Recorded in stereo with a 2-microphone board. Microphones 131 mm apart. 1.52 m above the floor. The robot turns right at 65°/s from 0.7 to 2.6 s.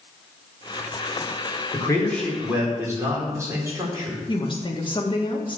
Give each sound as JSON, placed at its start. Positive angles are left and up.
{"t": 1.7, "sound": "a man speaking", "azimuth_deg": 145, "distance_m": 4.5}
{"t": 4.3, "sound": "a woman speaking", "side_deg": 40, "distance_m": 2.0}